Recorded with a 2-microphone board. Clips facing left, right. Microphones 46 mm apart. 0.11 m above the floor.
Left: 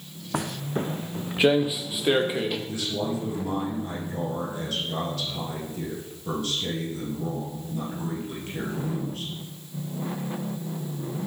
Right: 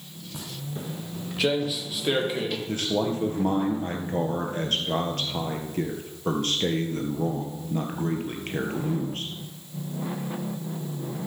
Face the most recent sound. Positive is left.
turn(degrees=-50)  # may be behind; listen again after turning